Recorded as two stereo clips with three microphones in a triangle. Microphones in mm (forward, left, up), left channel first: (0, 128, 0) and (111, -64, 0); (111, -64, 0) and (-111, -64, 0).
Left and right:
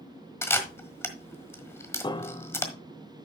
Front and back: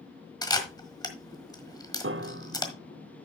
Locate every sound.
0.4 s a camera shutter: 50° left, 1.4 m
2.0 s a piano: 175° right, 0.6 m